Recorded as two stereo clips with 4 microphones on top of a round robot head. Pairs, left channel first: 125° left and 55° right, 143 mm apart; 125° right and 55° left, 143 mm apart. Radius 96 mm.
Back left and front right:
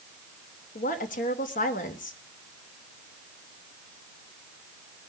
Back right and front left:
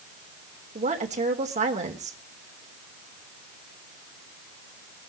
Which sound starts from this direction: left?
A woman speaking, at 0.8 s.